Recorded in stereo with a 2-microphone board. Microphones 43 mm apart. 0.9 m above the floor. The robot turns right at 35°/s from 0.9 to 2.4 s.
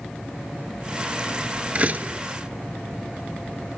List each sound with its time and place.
1.8 s a door slam: 35° right (ahead or behind), 2 m; by 2.2 s 50° right (ahead or behind), 2 m